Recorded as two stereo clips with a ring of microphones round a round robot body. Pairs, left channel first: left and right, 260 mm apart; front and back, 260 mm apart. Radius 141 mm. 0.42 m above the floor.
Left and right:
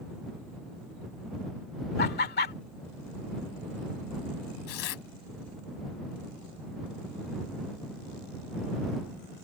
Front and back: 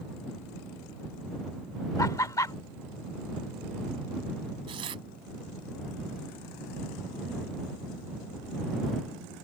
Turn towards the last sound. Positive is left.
turn(degrees=105)